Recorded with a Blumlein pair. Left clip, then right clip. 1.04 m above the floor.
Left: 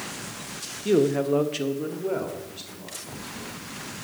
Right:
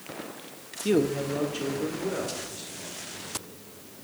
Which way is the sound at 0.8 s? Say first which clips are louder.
Left 4 dB; 10° right.